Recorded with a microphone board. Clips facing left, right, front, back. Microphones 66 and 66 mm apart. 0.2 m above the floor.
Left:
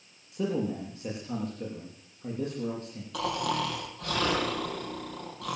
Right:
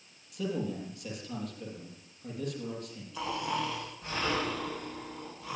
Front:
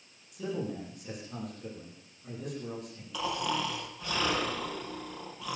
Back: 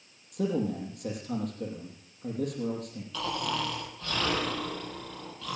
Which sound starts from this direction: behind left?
A man speaking, at 0.3 s.